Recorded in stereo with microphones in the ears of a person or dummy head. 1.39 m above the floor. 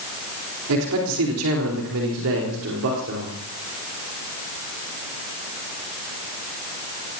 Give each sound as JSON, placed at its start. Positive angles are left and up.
{"t": 0.7, "sound": "a man speaking", "side_deg": -80, "distance_m": 4.5}